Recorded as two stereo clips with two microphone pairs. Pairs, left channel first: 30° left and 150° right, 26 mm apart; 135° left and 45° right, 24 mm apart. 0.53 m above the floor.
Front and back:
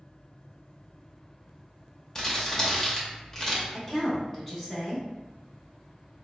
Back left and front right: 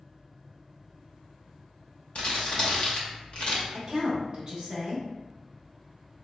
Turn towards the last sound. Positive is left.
turn(degrees=-25)